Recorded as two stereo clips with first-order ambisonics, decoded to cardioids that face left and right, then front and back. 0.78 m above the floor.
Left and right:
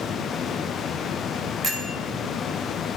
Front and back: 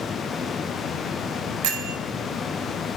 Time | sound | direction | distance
1.6 | a bell | 165° right | 0.7 m